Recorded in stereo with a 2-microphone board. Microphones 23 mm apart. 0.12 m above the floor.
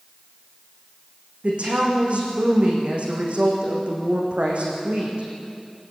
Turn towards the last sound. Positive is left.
turn(degrees=-55)  # may be behind; listen again after turning